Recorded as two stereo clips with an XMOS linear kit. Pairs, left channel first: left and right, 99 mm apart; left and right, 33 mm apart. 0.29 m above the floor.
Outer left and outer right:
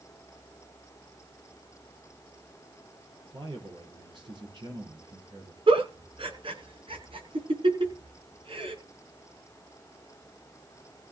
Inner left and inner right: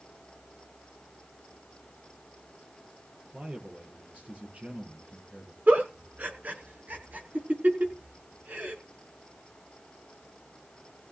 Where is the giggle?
60° right (ahead or behind), 3 m.